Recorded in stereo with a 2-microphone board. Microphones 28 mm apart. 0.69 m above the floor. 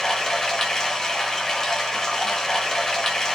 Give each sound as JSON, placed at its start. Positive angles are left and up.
{"t": 0.0, "sound": "running water", "side_deg": 20, "distance_m": 0.8}